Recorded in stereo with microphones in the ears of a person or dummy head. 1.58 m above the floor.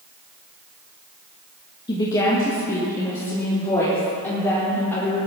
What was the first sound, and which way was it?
A woman speaking, 30° left (ahead or behind).